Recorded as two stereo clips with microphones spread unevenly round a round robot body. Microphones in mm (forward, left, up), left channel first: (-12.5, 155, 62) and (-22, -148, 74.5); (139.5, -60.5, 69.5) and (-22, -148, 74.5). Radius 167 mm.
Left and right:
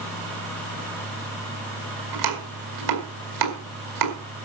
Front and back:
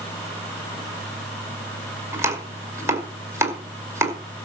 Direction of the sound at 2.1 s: 75° right.